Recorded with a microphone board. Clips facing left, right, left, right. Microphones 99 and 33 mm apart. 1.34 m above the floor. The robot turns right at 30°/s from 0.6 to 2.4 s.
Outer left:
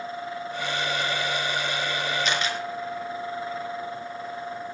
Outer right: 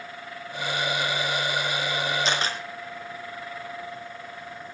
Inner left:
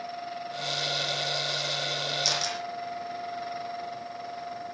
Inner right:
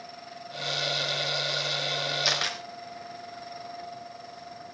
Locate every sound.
2.2 s a camera shutter: 30° right (ahead or behind), 4 m; by 2.6 s 35° right (ahead or behind), 4 m